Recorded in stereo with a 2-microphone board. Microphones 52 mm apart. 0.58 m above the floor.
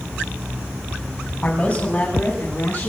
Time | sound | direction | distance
1.4 | a man speaking | 35° left (ahead or behind) | 3.5 m